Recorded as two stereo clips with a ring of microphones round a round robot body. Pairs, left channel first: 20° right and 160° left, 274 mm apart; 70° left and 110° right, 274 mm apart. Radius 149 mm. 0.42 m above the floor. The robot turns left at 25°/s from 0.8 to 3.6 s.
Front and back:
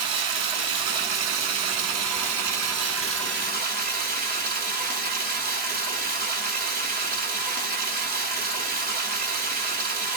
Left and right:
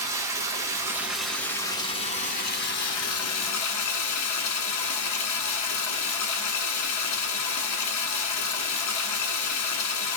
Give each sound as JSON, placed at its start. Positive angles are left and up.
{"t": 0.0, "sound": "running water", "azimuth_deg": 170, "distance_m": 0.7}